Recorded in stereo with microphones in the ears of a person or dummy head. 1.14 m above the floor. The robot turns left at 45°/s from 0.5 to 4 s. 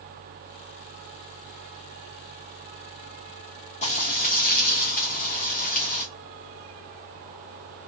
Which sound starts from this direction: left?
Frying, at 3.8 s.